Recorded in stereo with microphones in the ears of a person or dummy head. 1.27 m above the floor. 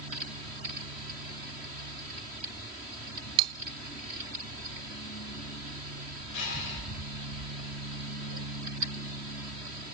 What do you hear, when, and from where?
3.4 s cutlery clinking: 30° right (ahead or behind), 0.6 m
6.3 s breathing: 70° left (ahead or behind), 5.5 m